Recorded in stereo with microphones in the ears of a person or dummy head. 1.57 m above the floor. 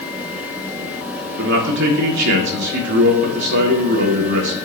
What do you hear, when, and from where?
1.4 s a man speaking: 65° right (ahead or behind), 1.7 m